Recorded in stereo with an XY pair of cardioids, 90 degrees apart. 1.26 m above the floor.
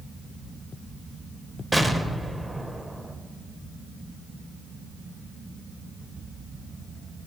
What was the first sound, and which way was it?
An explosion, 15° right.